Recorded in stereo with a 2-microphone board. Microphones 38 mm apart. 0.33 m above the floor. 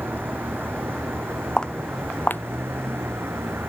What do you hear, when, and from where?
0.0 s a vehicle: 60° right (ahead or behind); by 3.7 s 80° right
1.6 s footsteps: 15° left (ahead or behind); by 3.7 s 70° left (ahead or behind)